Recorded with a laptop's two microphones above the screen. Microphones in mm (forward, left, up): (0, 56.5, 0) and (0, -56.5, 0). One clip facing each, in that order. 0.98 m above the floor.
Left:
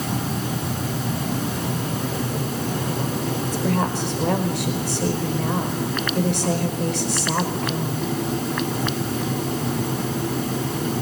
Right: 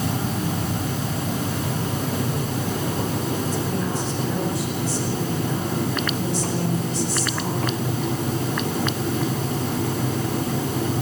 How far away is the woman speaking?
About 5 m.